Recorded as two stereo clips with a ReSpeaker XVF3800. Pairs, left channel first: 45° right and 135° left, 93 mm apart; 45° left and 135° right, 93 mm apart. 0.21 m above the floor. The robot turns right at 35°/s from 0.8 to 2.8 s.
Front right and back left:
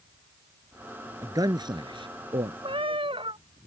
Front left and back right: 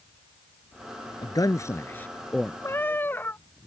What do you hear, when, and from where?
1.2 s a man speaking: 85° left; by 2.5 s 130° left
2.6 s a cat meowing: 110° left; by 3.4 s 115° left